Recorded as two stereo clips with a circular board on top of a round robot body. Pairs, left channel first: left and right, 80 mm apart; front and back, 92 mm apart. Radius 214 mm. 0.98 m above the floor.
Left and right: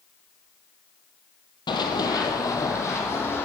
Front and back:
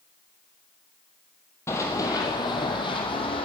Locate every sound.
1.7 s running footsteps: 60° left, 1.9 m; by 3.5 s 30° left, 3 m